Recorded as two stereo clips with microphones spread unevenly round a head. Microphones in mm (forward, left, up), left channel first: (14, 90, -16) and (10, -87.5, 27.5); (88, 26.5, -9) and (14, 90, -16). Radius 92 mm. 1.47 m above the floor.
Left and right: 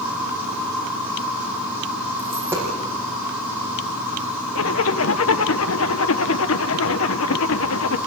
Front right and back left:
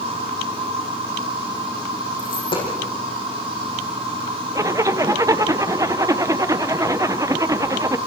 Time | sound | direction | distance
0.0 | an insect | 170° right | 7 m
2.2 | a dropped coin | 15° right | 7.5 m
4.5 | a zipper | 80° left | 0.9 m